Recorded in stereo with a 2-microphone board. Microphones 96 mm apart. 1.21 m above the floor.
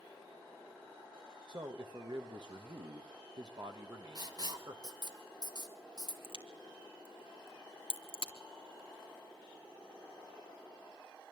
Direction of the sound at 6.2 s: 65° left (ahead or behind).